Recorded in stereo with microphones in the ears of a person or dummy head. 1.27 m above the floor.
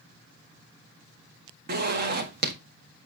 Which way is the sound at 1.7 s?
50° right (ahead or behind).